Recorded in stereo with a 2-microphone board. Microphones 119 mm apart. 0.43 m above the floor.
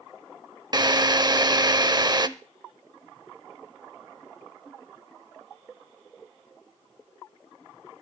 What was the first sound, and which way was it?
A drill, 35° right (ahead or behind).